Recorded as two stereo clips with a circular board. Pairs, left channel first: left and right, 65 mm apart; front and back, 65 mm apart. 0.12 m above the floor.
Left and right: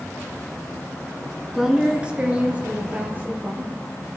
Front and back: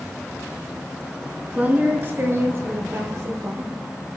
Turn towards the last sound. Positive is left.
turn(degrees=-145)